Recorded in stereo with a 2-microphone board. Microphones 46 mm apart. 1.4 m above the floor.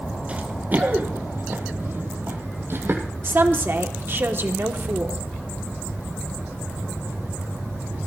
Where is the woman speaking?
55° right (ahead or behind), 1.3 m.